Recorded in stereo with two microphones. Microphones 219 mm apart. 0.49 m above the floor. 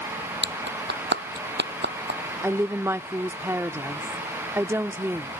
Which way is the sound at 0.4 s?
50° right (ahead or behind).